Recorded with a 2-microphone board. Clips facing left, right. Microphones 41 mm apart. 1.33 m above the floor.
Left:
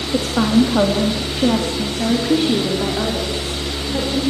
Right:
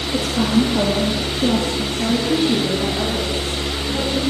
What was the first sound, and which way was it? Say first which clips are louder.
A woman speaking: left 3 dB; 70° left (ahead or behind).